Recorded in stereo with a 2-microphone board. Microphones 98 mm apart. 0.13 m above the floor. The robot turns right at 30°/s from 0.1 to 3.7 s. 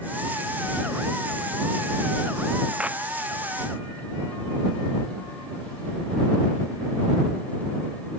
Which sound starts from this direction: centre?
A clap, at 2.8 s.